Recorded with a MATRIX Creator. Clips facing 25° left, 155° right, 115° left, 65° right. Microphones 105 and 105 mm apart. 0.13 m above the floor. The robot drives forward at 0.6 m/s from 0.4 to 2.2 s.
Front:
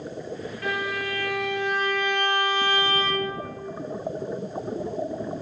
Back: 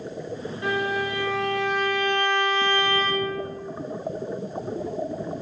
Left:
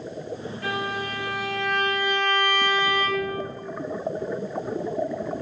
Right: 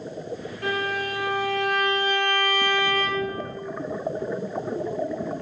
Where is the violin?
95° right, 3 m; by 3.4 s 115° right, 3 m.